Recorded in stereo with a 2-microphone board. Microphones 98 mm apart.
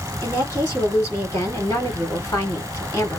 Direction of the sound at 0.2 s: 30° left (ahead or behind).